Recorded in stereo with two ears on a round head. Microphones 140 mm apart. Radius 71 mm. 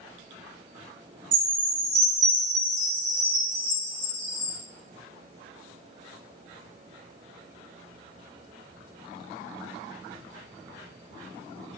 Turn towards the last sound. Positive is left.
turn(degrees=-80)